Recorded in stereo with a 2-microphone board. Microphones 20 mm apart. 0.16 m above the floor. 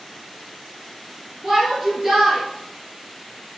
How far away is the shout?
About 3 m.